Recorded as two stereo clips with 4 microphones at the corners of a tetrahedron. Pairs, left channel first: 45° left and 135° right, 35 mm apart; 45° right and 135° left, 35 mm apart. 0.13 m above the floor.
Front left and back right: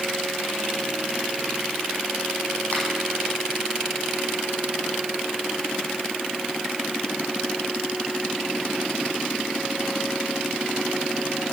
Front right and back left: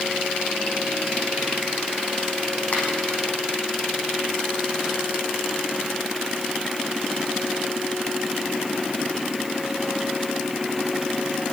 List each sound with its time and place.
2.7 s a finger snap: straight ahead, 5.5 m